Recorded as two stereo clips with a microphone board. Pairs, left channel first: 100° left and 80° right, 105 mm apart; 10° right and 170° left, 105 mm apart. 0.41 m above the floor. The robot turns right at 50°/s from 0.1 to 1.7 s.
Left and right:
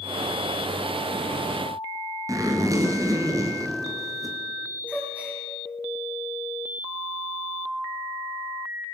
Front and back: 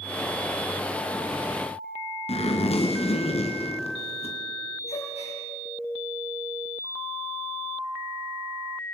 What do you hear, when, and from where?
2.3 s a zipper: 20° right, 3.5 m
4.9 s a gasp: 5° right, 8 m